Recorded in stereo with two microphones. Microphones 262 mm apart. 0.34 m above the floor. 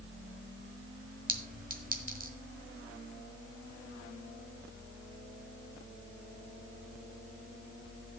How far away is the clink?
About 1.6 m.